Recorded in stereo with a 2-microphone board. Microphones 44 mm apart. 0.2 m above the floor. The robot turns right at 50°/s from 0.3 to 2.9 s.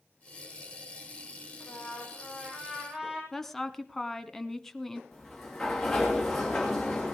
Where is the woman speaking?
5° left (ahead or behind), 1.5 m.